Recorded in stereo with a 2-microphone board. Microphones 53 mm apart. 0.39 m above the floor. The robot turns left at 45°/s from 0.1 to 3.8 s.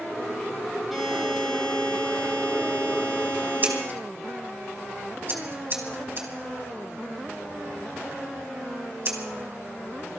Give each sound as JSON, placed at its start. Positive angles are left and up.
{"t": 0.9, "sound": "a buzzer", "azimuth_deg": 180, "distance_m": 8.0}
{"t": 3.6, "sound": "scissors", "side_deg": -40, "distance_m": 3.0}